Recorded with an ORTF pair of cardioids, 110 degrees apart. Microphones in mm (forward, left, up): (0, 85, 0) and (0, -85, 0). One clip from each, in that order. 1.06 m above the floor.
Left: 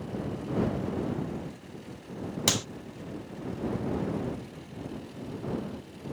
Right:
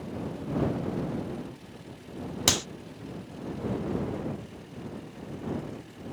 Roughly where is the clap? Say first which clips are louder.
Right 2 dB; ahead.